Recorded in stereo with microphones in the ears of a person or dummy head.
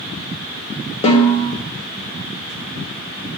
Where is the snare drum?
30° left (ahead or behind), 1.7 m.